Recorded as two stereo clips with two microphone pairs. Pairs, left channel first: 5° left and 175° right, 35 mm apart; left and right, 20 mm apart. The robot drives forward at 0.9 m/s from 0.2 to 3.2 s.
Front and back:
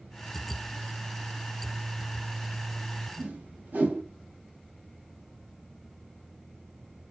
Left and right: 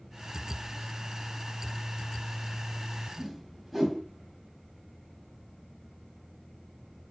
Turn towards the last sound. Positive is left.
turn(degrees=-175)